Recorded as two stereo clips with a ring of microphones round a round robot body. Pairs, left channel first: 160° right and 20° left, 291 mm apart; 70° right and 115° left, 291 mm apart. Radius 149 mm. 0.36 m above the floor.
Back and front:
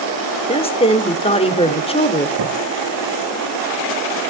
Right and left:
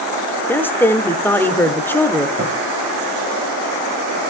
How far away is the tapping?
About 8 m.